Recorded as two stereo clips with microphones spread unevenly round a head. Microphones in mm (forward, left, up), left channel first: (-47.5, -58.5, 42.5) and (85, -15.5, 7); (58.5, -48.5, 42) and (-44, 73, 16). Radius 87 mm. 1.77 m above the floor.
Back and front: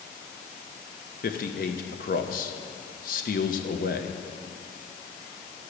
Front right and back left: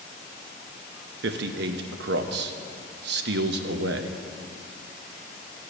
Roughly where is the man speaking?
Behind.